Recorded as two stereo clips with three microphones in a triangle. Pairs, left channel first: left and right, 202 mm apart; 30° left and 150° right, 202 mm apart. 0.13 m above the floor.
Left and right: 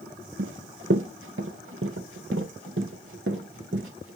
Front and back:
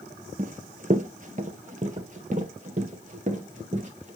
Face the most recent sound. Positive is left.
turn(degrees=-95)